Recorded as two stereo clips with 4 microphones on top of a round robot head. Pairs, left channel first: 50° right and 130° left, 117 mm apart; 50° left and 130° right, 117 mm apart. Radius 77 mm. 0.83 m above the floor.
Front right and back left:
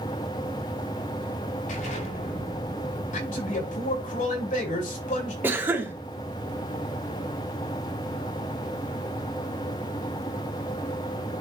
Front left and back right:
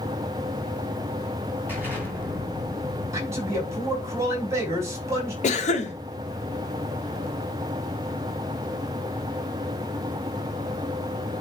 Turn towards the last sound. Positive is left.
turn(degrees=60)